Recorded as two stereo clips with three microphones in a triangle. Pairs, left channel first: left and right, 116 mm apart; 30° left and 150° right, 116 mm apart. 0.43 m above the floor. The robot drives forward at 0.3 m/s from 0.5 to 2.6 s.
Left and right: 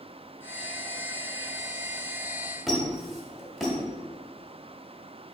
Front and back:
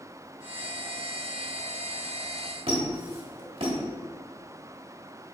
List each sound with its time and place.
2.7 s a squeak: straight behind, 1.2 m